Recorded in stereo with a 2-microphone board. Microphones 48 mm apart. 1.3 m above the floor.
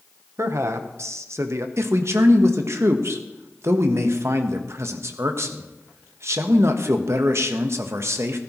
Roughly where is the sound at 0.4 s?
Right.